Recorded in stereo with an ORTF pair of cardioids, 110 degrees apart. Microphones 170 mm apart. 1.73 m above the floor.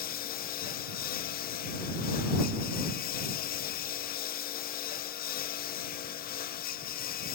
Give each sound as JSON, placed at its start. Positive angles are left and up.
{"t": 0.0, "sound": "a lawn mower", "azimuth_deg": 60}